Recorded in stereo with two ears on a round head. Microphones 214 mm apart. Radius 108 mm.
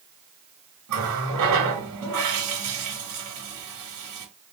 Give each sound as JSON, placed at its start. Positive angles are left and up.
{"t": 0.9, "sound": "a running tap", "side_deg": -80, "distance_m": 3.5}